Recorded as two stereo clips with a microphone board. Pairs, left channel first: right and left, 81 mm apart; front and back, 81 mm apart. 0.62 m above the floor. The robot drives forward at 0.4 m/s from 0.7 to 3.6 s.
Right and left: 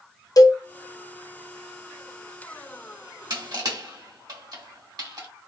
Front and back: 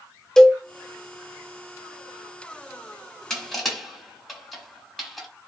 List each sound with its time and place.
0.4 s a cowbell: 80° right, 0.7 m
3.3 s crushing: 85° left, 2 m; by 5.3 s 90° left, 2 m